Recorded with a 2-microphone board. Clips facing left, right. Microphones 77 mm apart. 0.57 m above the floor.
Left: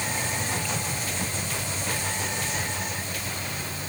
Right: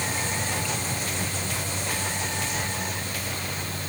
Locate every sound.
Only background noise.